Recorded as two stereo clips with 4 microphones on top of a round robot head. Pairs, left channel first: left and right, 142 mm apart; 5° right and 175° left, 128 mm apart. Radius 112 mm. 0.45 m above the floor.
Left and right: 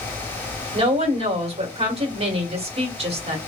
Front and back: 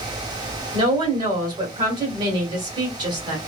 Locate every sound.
0.7 s a woman speaking: 130° right, 1.7 m